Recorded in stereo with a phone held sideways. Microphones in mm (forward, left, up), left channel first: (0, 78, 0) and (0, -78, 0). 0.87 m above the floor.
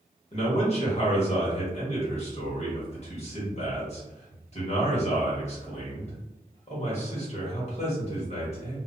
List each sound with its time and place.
0.3 s a man speaking: 45° left (ahead or behind), 1.2 m